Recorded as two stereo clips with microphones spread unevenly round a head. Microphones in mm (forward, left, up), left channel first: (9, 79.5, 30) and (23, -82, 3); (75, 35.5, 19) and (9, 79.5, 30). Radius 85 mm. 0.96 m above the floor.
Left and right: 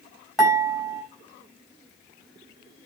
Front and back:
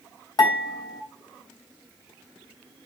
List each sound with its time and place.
0.4 s dishes clattering: 5° left, 4 m